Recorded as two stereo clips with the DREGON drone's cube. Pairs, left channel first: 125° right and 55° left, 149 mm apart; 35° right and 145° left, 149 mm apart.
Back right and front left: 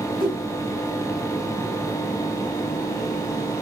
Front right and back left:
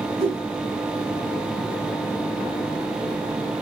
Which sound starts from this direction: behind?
A whoosh, at 0.2 s.